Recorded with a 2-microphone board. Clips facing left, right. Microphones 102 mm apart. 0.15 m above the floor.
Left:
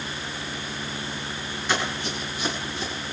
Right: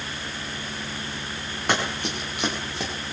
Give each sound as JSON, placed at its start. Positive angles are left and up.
{"t": 1.7, "sound": "running footsteps", "side_deg": -60, "distance_m": 6.5}